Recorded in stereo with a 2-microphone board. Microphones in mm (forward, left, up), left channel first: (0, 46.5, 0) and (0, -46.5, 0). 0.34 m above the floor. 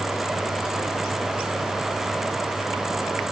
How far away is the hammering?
No hammering in this recording.